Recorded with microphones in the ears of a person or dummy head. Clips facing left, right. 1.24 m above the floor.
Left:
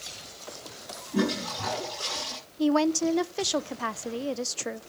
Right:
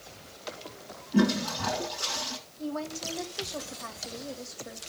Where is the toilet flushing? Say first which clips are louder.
Right 3 dB; 5° left (ahead or behind), 8 m.